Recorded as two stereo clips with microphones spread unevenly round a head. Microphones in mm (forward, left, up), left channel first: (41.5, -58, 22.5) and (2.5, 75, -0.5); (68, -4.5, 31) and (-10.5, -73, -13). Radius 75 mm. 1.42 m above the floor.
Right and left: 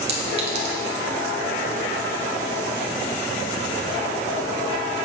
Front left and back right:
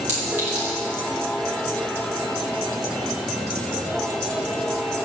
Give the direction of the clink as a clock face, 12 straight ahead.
7 o'clock.